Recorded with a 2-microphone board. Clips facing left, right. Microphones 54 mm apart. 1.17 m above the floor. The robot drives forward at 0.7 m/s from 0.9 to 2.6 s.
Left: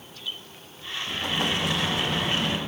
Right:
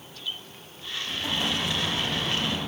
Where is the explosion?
50° left (ahead or behind), 1.2 m; by 2.6 s 60° left (ahead or behind), 1.1 m.